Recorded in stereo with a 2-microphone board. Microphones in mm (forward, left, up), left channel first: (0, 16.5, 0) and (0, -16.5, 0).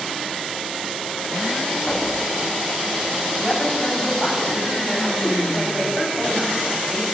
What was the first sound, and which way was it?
Knocking, 25° left (ahead or behind).